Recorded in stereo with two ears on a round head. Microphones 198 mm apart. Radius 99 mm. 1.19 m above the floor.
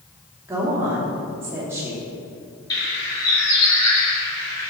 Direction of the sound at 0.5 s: 10° right (ahead or behind).